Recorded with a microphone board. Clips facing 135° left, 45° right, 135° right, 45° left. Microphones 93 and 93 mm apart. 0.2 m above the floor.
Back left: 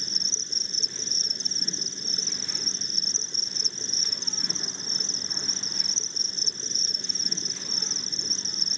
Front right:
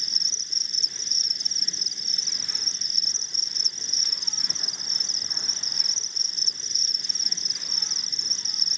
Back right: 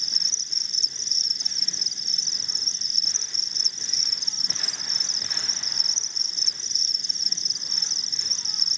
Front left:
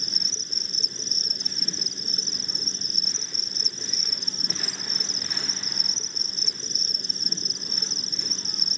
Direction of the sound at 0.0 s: 85° left.